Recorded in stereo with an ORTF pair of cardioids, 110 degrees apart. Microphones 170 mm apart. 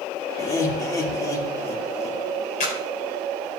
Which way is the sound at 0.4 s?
20° left.